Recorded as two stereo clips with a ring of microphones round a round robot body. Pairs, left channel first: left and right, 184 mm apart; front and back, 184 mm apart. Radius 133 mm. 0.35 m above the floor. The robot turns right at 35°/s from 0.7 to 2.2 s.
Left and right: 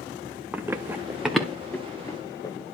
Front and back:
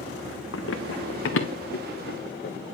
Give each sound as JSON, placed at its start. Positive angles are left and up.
{"t": 0.5, "sound": "running footsteps", "azimuth_deg": -10, "distance_m": 1.1}